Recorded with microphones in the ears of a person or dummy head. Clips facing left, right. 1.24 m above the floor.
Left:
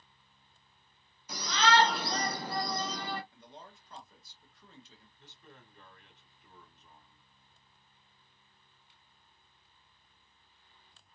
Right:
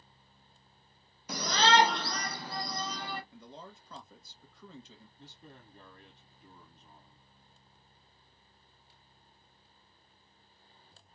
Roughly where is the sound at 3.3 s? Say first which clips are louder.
Right 3 dB; right.